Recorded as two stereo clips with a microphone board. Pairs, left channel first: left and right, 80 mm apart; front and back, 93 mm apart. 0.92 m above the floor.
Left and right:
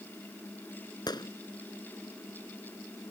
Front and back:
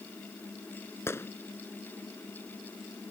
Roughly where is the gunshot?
Ahead left.